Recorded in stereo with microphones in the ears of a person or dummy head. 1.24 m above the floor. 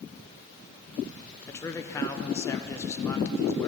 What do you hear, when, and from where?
1.5 s a man speaking: 15° left (ahead or behind), 0.8 m